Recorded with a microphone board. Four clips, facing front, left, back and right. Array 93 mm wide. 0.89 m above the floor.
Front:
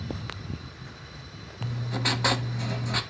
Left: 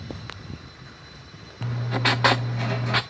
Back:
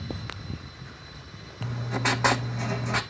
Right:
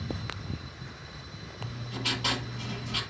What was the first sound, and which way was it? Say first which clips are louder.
Writing: left 11 dB, back 3 dB; 110° left.